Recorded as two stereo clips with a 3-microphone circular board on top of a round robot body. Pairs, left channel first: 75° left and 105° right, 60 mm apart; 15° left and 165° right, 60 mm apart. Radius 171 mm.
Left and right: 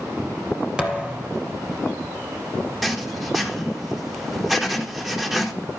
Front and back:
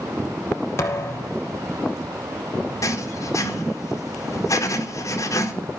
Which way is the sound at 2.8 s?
20° right.